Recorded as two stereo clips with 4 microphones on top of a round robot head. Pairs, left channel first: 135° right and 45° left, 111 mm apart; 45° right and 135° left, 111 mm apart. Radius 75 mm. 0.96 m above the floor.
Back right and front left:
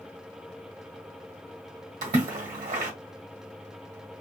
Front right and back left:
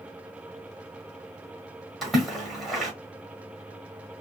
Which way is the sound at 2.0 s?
40° left.